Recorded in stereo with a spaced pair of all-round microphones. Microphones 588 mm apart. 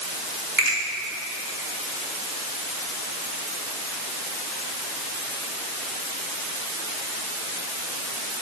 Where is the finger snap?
30° right (ahead or behind), 3 m.